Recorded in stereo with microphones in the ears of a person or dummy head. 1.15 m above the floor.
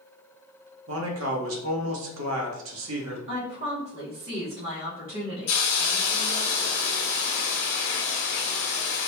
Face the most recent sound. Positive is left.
turn(degrees=45)  # may be behind; listen again after turning